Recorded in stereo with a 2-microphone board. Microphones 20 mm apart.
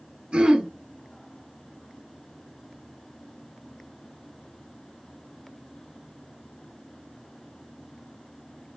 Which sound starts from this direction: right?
Throat clearing, at 0.3 s.